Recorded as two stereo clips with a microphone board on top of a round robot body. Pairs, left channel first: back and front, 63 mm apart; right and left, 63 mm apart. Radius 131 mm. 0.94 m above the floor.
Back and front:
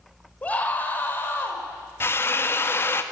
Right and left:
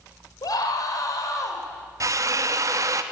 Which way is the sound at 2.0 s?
130° left.